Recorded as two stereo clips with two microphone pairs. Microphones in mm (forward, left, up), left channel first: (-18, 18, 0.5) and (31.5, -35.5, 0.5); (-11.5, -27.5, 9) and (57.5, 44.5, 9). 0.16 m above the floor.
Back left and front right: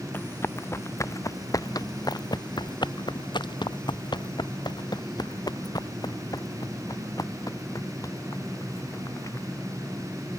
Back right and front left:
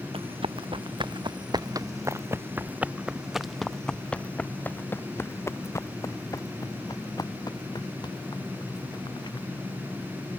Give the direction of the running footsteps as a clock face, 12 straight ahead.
10 o'clock.